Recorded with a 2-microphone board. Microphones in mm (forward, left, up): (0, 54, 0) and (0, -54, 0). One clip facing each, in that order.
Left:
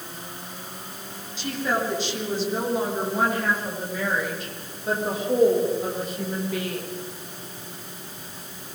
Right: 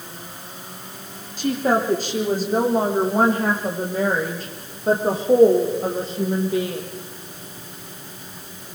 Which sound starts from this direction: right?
A woman speaking, at 1.4 s.